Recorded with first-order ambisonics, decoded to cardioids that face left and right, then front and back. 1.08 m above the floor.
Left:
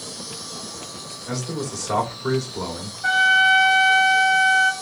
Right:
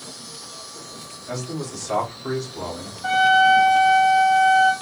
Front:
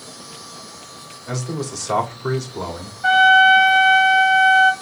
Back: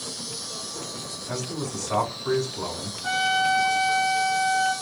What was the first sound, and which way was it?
An insect, 145° left.